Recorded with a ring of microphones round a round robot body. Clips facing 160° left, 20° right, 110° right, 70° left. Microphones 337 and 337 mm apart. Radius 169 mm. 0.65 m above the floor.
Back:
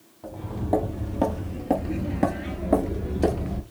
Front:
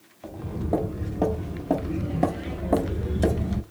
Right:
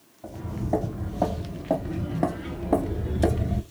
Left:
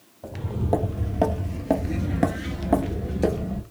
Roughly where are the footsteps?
Left.